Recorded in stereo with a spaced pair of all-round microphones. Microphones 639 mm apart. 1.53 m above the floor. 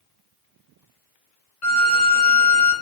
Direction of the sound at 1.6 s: 55° left (ahead or behind).